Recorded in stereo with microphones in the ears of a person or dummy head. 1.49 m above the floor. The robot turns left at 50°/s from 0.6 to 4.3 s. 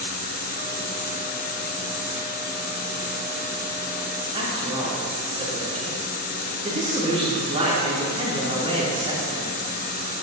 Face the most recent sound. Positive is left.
turn(degrees=-30)  # may be behind; listen again after turning